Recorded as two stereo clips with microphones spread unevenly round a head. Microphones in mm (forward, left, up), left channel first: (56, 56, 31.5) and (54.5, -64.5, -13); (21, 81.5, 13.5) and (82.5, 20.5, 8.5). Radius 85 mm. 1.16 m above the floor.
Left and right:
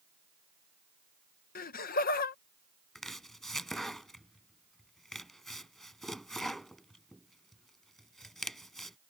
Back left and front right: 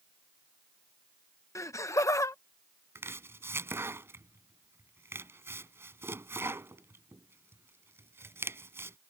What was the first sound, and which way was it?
Laughter, 80° left.